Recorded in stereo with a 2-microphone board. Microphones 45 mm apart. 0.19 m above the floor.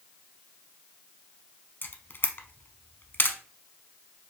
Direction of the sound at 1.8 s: 45° left (ahead or behind).